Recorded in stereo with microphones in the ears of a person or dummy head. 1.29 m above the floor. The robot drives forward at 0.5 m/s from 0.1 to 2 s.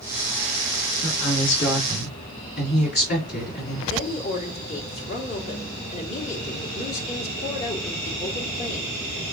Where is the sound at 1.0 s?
65° left (ahead or behind), 1.9 m; by 3.8 s 55° left (ahead or behind), 2 m.